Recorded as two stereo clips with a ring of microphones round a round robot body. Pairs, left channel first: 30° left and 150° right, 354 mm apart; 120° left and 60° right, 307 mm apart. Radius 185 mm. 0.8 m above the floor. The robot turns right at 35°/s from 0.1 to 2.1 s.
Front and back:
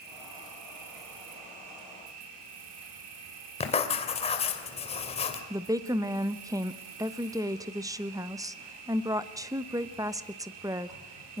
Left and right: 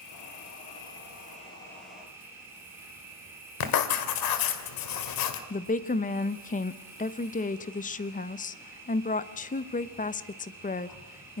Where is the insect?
145° left, 4 m; by 11.4 s 145° right, 4 m.